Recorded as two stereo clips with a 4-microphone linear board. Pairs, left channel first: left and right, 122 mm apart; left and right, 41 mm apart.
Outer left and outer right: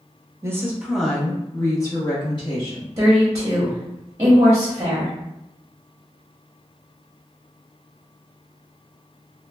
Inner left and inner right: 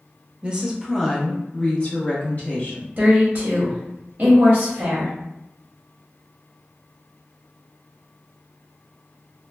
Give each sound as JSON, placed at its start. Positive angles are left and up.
{"t": 0.4, "sound": "a woman speaking", "side_deg": -20, "distance_m": 0.6}
{"t": 3.0, "sound": "a woman speaking", "side_deg": -30, "distance_m": 0.9}